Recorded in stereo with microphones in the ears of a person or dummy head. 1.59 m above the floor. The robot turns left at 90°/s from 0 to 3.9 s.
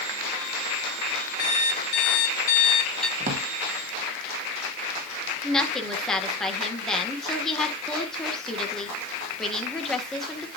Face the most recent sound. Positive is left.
turn(degrees=5)  # may be behind; listen again after turning